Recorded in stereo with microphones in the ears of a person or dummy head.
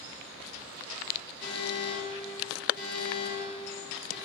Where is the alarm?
55° left (ahead or behind), 2.5 m.